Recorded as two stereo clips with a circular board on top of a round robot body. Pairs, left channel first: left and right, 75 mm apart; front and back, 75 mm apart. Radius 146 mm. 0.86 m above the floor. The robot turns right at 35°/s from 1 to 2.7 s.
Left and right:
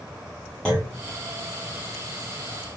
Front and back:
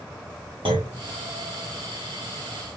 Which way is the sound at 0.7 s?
170° left.